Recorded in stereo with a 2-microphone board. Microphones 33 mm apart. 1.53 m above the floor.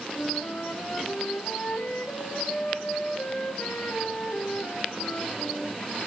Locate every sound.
0.1 s a flute: 55° left (ahead or behind), 5 m